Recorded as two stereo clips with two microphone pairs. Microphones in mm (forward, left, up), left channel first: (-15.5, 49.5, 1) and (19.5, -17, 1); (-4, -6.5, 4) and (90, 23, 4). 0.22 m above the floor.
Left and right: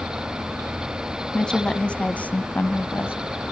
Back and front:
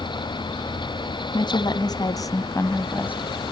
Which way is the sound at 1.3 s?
165° right.